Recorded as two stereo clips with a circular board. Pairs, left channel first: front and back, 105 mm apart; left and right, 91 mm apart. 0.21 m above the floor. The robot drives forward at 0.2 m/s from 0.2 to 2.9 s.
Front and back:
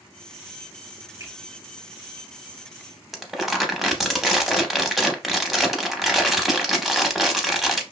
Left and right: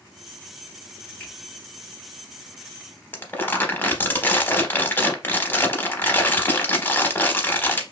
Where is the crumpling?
90° left, 0.5 m.